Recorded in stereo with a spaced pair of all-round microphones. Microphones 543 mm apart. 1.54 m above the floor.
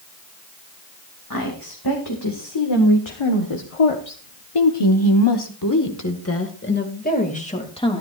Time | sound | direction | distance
1.3 | a woman speaking | 40° left (ahead or behind) | 3 m